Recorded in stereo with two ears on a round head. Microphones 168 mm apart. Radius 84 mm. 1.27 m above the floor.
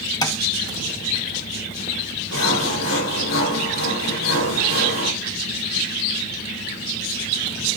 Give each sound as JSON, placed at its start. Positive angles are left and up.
{"t": 0.2, "sound": "tapping", "side_deg": 20, "distance_m": 1.9}
{"t": 2.3, "sound": "sawing", "side_deg": 80, "distance_m": 6.0}